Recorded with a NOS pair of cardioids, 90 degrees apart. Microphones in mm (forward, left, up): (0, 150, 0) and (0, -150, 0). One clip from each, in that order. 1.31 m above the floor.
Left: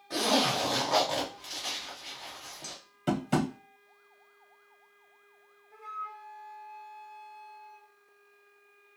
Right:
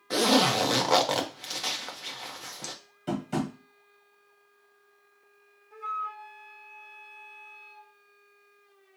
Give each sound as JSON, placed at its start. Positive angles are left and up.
{"t": 0.1, "sound": "a zipper", "azimuth_deg": -45, "distance_m": 1.0}
{"t": 3.1, "sound": "tapping", "azimuth_deg": 40, "distance_m": 0.9}
{"t": 5.7, "sound": "a flute", "azimuth_deg": -50, "distance_m": 1.4}